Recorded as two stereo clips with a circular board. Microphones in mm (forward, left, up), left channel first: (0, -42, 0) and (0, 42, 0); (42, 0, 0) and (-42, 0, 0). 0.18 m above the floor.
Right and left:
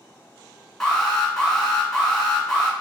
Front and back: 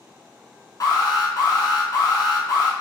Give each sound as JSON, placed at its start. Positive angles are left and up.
{"t": 0.8, "sound": "an alarm", "azimuth_deg": -5, "distance_m": 1.1}